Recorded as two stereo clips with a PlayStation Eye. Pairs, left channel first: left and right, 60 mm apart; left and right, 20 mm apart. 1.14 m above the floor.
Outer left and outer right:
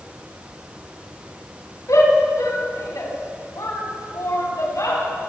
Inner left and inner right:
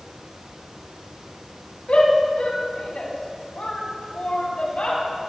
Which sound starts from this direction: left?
A shout, at 1.9 s.